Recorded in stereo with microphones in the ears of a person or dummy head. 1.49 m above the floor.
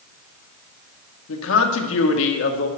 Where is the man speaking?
75° left (ahead or behind), 1.8 m.